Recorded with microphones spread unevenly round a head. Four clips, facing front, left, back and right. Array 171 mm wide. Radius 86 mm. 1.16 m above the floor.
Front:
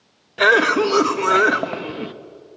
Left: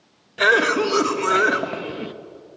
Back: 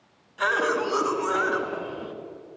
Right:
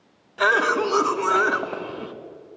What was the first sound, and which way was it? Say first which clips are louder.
A cough: left 2 dB, front 8 dB; 5° left.